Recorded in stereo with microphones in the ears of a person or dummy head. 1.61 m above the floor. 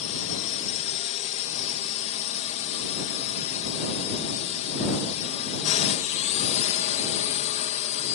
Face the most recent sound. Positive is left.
turn(degrees=40)  # may be behind; listen again after turning